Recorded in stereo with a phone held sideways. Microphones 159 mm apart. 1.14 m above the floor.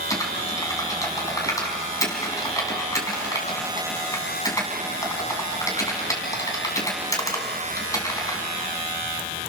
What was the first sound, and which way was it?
Typing on a keyboard, 20° left (ahead or behind).